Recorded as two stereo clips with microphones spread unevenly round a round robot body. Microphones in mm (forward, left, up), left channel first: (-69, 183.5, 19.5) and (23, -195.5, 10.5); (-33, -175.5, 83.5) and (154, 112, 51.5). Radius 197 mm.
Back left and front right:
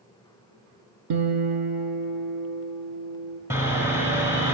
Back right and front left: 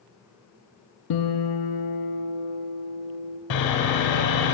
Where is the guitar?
105° right, 0.8 m.